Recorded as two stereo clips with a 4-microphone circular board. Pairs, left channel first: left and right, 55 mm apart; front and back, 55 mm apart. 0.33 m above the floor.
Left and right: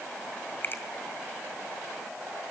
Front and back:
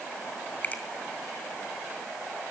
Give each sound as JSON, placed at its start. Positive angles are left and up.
{"t": 0.6, "sound": "a finger snap", "azimuth_deg": 50, "distance_m": 2.0}